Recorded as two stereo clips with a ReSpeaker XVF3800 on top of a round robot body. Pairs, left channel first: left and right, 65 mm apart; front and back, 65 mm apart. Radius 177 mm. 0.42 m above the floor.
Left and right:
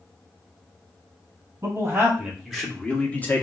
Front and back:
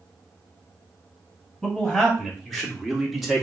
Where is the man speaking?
80° right, 1.3 m; by 3.4 s 100° left, 1.3 m.